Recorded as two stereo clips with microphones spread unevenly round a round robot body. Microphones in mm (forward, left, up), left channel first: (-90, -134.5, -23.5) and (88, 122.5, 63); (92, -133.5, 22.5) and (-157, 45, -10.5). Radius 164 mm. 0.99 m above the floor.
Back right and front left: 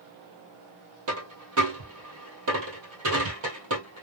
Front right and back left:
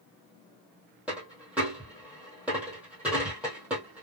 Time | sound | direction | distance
1.1 | a dropped coin | 55° left | 1.6 m